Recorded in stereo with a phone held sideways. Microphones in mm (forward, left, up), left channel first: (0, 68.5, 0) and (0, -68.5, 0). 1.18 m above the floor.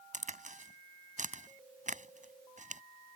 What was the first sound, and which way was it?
A crack, 65° right (ahead or behind).